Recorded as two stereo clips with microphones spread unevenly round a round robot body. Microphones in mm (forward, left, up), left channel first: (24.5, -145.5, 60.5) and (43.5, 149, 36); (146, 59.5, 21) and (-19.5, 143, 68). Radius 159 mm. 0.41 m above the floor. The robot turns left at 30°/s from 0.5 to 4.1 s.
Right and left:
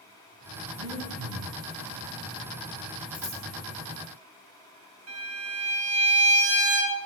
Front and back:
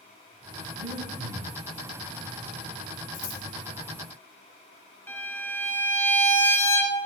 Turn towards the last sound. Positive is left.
turn(degrees=50)